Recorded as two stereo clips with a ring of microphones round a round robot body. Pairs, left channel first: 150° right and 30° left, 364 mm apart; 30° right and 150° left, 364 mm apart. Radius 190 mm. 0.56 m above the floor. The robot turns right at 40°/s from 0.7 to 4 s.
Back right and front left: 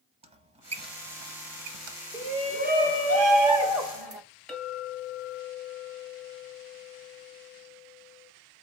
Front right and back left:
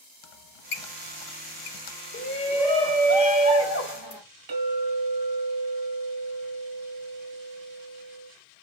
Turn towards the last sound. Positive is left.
turn(degrees=125)